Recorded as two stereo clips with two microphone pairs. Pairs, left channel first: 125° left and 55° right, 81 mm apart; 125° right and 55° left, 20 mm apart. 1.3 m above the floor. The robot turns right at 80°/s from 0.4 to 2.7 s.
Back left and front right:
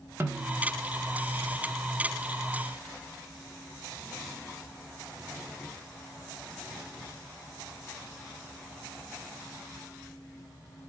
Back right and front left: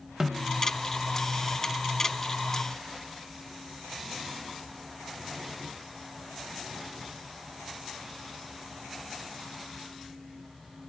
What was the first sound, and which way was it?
A snare drum, straight ahead.